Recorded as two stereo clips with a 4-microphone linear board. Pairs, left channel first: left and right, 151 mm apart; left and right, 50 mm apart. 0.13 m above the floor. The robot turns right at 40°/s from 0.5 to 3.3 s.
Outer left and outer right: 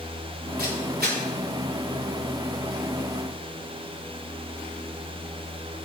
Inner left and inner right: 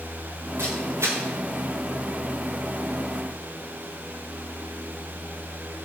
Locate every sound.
0.6 s a camera shutter: 70° right (ahead or behind), 7.5 m; by 1.2 s 80° right, 7.5 m